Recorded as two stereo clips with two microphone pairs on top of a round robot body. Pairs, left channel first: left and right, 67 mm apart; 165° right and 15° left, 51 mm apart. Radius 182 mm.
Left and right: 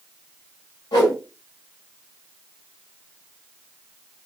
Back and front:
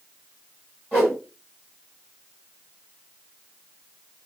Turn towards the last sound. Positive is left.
turn(degrees=80)